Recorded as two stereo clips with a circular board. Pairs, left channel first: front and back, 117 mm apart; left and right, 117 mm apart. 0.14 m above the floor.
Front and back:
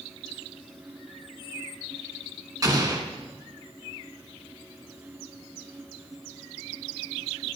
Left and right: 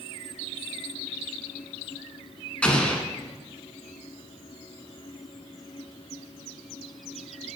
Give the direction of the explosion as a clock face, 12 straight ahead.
7 o'clock.